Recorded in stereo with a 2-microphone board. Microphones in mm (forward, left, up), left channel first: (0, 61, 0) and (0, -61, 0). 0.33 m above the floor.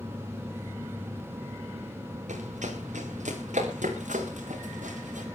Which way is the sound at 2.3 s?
80° right.